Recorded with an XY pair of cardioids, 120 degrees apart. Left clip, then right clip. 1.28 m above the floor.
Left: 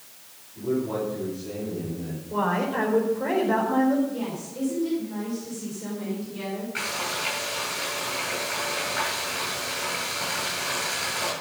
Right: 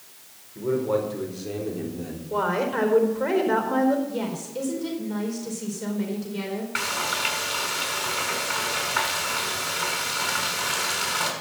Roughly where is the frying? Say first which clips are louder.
Right 3 dB; ahead right.